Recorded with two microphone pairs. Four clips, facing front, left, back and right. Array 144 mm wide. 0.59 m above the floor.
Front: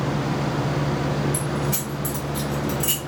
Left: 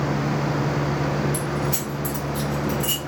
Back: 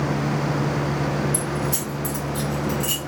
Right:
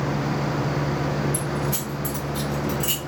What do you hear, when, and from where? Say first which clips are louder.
1.3 s keys jangling: left 1 dB, even; 25° left, 2 m; by 3.0 s 10° right, 1.3 m